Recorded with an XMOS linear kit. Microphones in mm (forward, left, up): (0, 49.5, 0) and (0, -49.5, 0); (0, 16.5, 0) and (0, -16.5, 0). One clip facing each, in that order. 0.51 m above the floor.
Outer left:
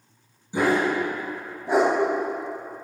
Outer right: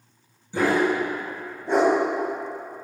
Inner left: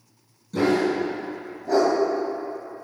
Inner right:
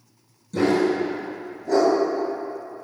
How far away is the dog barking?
About 2 m.